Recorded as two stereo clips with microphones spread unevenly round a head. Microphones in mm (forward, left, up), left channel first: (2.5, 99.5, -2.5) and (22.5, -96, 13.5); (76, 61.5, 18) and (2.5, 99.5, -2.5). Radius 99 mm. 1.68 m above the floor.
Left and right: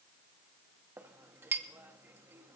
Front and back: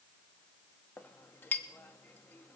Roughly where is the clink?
Ahead.